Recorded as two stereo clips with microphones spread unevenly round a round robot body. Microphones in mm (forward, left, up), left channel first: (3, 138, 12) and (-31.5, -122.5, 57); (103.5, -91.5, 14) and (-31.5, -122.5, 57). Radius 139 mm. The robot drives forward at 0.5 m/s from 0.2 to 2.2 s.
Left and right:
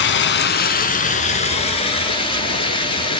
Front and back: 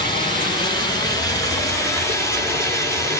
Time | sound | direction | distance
0.0 | running water | 135° left | 1.1 m